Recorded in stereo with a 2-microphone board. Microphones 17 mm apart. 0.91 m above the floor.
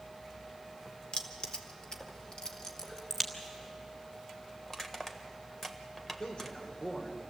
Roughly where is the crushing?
Centre.